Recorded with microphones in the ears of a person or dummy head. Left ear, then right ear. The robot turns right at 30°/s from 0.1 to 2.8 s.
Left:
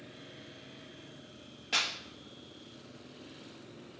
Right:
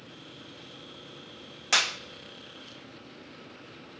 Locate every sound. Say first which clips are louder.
1.7 s a clap: right 6 dB; 50° right (ahead or behind), 1.0 m; by 2.0 s 60° right (ahead or behind), 1.0 m